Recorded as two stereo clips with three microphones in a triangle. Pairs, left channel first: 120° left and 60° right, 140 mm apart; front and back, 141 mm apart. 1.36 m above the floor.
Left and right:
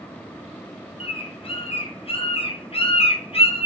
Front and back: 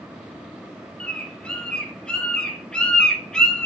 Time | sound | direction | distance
1.0 | a bird | 80° left | 1.1 m